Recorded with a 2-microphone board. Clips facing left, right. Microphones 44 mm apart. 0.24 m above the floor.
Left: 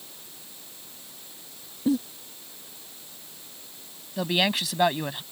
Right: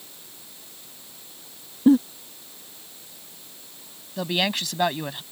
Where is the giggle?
45° right (ahead or behind).